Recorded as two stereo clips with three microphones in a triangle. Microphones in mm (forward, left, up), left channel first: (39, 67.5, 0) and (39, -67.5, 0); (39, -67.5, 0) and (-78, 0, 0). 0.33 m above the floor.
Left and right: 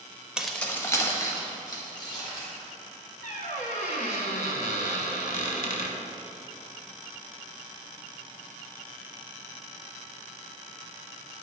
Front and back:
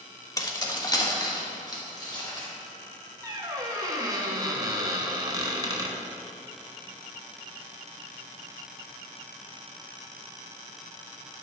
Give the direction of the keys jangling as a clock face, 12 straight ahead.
1 o'clock.